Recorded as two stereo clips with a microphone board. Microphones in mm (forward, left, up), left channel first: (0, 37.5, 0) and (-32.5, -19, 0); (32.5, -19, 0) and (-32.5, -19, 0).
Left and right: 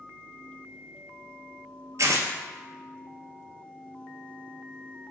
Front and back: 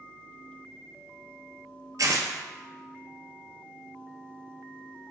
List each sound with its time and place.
2.0 s tearing paper: 155° right, 0.7 m